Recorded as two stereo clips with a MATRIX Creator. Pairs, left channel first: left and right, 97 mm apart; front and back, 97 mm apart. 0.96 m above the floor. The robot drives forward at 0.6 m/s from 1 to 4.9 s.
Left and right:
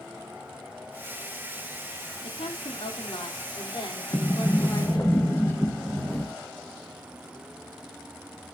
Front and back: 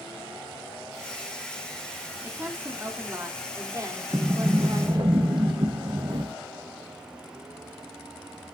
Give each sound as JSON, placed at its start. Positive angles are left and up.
{"t": 2.2, "sound": "a woman speaking", "azimuth_deg": 110, "distance_m": 2.5}
{"t": 4.1, "sound": "a sliding door", "azimuth_deg": 140, "distance_m": 0.8}